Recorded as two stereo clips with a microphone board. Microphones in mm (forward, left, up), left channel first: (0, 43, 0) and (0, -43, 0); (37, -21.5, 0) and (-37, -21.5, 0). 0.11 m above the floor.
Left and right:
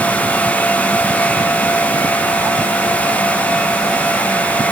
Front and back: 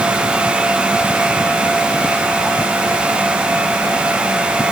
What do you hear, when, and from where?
Only background noise.